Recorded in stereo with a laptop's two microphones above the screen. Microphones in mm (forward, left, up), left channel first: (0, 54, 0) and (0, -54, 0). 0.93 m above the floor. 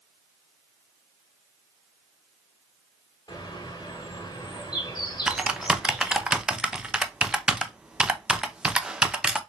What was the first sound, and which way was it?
A bird, 40° left (ahead or behind).